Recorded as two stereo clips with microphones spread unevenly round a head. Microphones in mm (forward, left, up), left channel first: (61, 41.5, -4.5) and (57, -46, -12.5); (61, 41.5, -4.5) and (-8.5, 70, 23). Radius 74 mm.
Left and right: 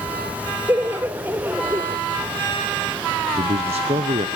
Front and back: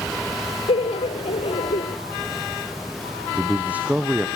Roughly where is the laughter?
Ahead right.